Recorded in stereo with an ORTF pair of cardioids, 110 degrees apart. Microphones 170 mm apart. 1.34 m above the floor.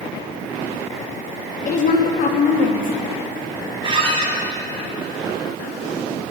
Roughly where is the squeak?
Ahead right.